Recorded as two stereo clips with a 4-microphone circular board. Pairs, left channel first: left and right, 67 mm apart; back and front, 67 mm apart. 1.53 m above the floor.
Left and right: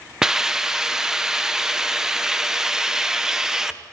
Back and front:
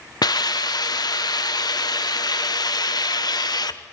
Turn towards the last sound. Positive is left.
turn(degrees=-170)